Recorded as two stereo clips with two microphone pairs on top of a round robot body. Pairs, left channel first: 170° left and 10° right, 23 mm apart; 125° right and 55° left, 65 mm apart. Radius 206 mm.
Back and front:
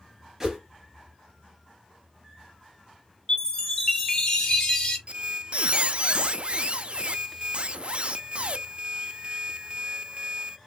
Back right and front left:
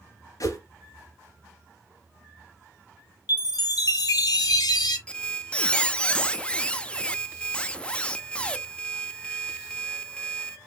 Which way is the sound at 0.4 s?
95° right.